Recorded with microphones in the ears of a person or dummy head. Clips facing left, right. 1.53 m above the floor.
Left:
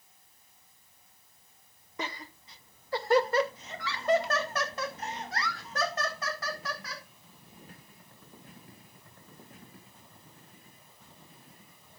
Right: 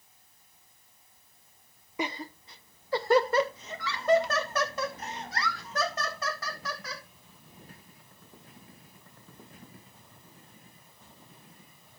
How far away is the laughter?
About 0.6 m.